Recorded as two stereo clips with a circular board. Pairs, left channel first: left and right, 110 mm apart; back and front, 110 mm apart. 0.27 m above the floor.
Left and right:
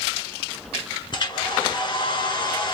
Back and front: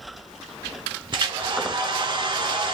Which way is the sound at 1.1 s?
45° left.